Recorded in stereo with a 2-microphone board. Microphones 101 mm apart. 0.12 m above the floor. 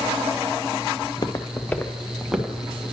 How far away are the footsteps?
About 0.6 m.